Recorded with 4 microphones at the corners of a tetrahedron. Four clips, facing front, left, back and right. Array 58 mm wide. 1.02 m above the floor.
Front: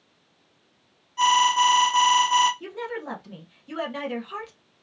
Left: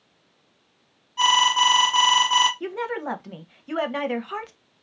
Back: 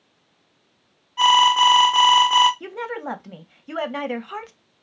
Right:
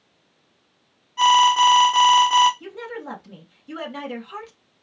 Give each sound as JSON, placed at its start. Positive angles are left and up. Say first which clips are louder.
{"t": 1.2, "sound": "an alarm", "louder": "right 4 dB, back 4 dB", "azimuth_deg": -175, "distance_m": 0.7}
{"t": 2.6, "sound": "a woman speaking", "louder": "left 5 dB, back 3 dB", "azimuth_deg": 130, "distance_m": 0.8}